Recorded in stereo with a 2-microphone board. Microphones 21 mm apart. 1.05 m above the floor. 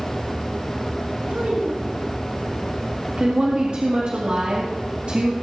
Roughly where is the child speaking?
Right.